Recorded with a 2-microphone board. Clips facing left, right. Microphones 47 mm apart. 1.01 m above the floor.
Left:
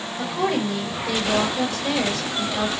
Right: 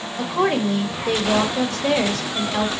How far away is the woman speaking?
About 0.9 m.